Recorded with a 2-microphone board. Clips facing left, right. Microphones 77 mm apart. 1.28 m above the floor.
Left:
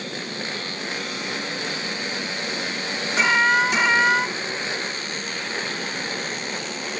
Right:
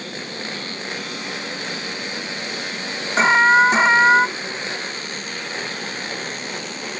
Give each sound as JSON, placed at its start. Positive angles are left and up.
{"t": 3.2, "sound": "an alarm", "side_deg": -30}